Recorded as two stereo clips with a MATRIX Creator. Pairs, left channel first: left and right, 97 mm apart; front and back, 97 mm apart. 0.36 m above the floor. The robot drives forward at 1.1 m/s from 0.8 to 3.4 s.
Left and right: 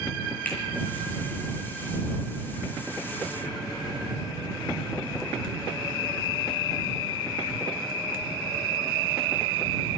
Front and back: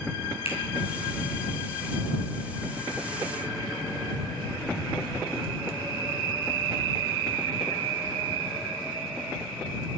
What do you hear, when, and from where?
0.5 s a finger snap: 20° left, 7.5 m